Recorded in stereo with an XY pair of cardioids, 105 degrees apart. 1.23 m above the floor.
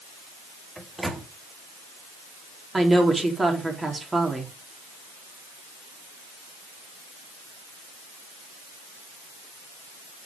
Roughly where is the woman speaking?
Ahead right.